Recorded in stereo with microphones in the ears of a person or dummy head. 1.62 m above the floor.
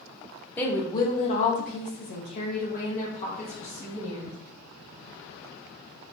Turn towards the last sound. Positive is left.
turn(degrees=40)  # may be behind; listen again after turning